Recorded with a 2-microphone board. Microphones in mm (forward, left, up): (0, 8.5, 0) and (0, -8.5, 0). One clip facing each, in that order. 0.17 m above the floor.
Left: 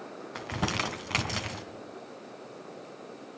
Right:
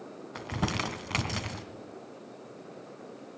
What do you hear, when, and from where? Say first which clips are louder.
0.3 s crumpling: left 1 dB; 5° left (ahead or behind), 1.7 m